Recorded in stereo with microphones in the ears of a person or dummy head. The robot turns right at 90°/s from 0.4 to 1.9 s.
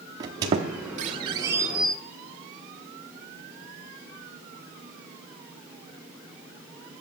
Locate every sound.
0.2 s a squeak: 20° right (ahead or behind), 1.0 m; by 2.0 s centre (ahead or behind), 1.0 m